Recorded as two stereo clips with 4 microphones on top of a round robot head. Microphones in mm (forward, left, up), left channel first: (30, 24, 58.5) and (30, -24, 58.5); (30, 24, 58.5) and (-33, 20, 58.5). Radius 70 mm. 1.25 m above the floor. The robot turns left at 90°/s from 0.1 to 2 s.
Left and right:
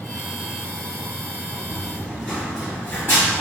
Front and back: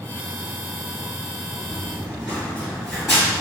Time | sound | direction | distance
1.7 | running footsteps | 20° right | 1.3 m